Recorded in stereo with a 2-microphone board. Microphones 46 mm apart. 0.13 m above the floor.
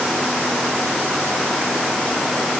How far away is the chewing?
No chewing in this recording.